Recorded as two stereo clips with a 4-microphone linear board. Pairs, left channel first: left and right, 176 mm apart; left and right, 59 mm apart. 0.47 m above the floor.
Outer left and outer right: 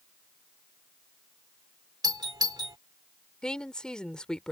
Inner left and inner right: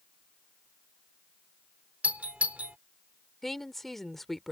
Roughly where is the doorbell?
Right.